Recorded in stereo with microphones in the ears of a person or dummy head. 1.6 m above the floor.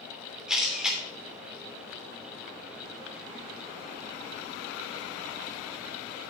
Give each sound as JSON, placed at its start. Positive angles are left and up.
{"t": 0.5, "sound": "a camera shutter", "side_deg": -5, "distance_m": 3.0}